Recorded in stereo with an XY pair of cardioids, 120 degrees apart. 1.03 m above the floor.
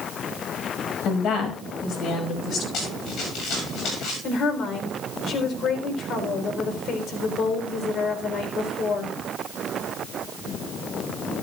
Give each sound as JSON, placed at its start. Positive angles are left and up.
{"t": 1.1, "sound": "a woman speaking", "azimuth_deg": 65, "distance_m": 5.5}
{"t": 2.7, "sound": "running footsteps", "azimuth_deg": 65, "distance_m": 7.5}
{"t": 4.2, "sound": "a woman speaking", "azimuth_deg": 55, "distance_m": 4.0}